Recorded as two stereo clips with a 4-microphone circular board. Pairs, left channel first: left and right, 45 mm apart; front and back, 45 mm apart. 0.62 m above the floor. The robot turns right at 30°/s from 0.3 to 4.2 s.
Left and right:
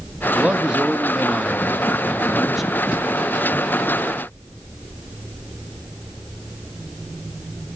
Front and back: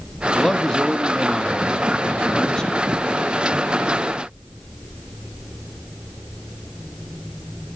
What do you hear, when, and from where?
0.3 s a man speaking: 70° right, 0.6 m; by 2.8 s 5° left, 0.6 m